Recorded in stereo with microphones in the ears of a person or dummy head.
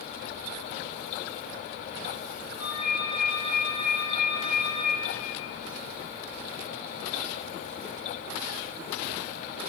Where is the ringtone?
15° right (ahead or behind), 5.5 m.